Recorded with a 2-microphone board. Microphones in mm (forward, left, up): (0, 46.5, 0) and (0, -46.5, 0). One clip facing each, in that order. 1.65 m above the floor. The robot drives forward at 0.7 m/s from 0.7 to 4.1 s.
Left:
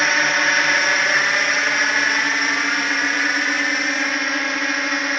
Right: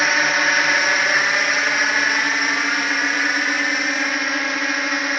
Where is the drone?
Centre (ahead or behind).